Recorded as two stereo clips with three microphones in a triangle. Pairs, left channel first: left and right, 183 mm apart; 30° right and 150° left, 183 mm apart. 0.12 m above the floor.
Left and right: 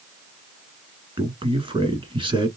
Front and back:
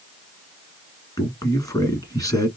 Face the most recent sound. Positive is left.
turn(degrees=-75)